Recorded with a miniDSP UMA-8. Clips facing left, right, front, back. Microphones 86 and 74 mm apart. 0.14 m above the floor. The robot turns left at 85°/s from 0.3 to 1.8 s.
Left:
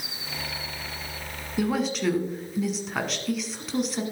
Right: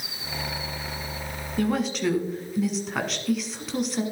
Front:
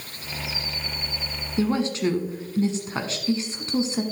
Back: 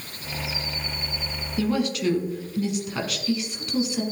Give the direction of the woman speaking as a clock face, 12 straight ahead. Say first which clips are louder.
Right 1 dB, front 1 dB; 11 o'clock.